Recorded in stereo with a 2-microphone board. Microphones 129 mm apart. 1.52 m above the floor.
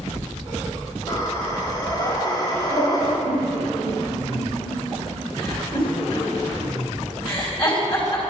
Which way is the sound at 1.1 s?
30° left (ahead or behind).